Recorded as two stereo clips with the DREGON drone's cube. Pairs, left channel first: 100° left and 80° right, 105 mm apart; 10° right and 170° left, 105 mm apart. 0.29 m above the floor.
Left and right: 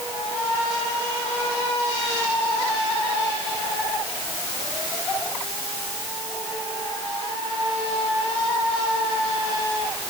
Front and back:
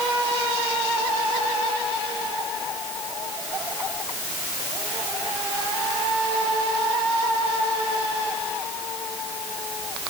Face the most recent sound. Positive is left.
No sound to turn to.